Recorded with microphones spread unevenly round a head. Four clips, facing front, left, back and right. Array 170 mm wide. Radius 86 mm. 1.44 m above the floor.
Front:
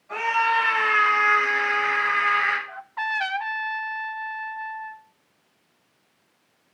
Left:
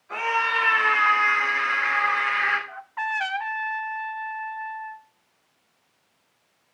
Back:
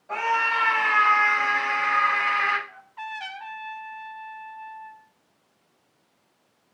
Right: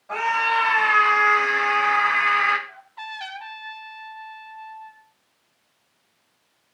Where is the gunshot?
No gunshot in this recording.